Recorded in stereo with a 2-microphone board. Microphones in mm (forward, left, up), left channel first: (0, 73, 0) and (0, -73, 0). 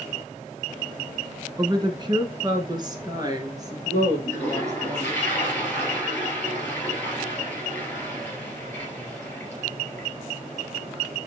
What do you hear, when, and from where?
1.6 s a woman speaking: 30° right (ahead or behind), 1.1 m; by 5.2 s 20° right (ahead or behind), 3 m
4.2 s a toilet flushing: 10° left (ahead or behind), 3 m